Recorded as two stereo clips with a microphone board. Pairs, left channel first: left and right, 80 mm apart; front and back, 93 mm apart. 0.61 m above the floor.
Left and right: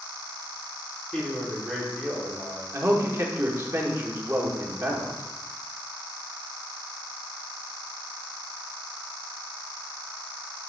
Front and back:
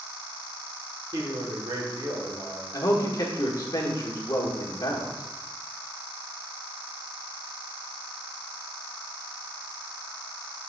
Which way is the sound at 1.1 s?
170° left.